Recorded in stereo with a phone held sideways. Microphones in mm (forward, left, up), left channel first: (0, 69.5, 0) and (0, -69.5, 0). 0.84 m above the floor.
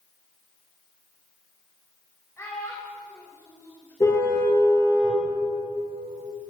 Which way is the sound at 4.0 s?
25° left (ahead or behind).